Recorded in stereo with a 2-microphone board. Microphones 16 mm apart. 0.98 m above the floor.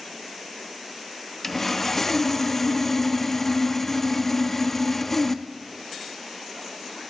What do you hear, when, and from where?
1.4 s sawing: 15° left (ahead or behind), 0.6 m